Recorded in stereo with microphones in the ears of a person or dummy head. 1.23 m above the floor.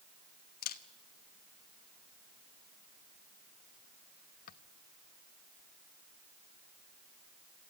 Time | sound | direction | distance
0.6 | a camera shutter | 55° left (ahead or behind) | 1.0 m